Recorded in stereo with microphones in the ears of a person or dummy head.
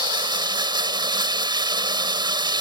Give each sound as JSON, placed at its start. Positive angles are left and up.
{"t": 0.0, "sound": "running water", "side_deg": -20}